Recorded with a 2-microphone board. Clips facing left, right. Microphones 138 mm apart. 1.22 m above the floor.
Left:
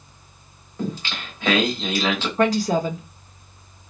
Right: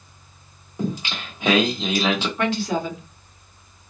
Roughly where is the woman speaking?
Left.